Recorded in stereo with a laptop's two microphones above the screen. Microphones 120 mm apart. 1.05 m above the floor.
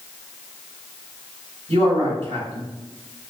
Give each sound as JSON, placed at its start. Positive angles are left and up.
{"t": 1.7, "sound": "a man speaking", "side_deg": -70, "distance_m": 2.0}